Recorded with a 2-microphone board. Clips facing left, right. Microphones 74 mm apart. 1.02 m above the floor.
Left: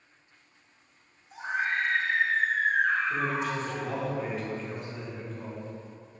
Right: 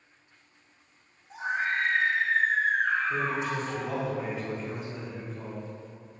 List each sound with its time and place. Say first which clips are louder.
1.3 s a scream: right 1 dB; 60° right (ahead or behind), 1.3 m; by 3.9 s 10° right (ahead or behind), 2 m
3.1 s a man speaking: even; 5° right (ahead or behind), 1.0 m